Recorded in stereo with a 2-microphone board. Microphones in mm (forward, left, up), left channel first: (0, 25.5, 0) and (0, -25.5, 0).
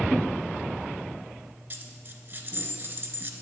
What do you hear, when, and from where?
1.7 s a dropped coin: 40° right (ahead or behind), 0.9 m